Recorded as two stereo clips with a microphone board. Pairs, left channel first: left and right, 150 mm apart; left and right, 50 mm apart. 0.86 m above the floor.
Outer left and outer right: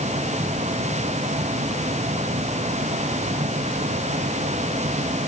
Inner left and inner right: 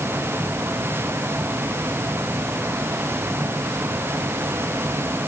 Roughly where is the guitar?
No guitar in this recording.